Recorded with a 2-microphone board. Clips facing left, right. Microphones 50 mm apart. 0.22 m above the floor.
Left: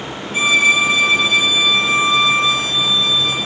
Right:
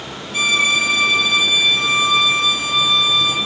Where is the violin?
30° left (ahead or behind), 1.0 m.